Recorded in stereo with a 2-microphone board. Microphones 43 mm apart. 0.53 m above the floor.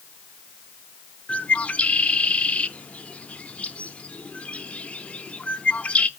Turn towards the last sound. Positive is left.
turn(degrees=30)  # may be behind; listen again after turning